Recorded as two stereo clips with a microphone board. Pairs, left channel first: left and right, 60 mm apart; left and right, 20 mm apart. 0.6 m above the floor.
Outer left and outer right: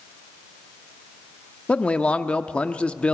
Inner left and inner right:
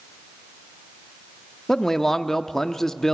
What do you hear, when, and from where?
1.7 s a man speaking: 20° left (ahead or behind), 0.8 m